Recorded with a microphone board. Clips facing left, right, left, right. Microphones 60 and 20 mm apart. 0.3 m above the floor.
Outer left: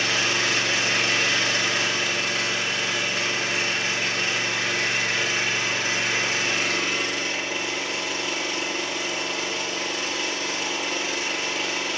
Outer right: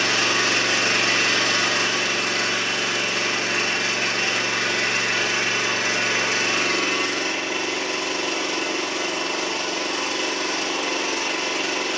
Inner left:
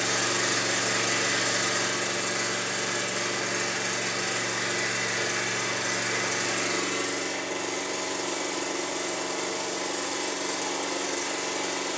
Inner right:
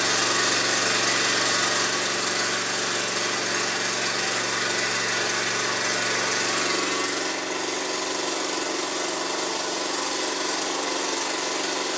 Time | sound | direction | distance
0.0 | an engine running | 70° right (ahead or behind) | 3 m